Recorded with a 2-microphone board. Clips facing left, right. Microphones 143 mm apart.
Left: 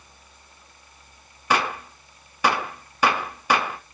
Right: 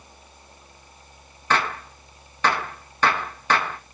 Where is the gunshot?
10° left (ahead or behind), 0.7 m.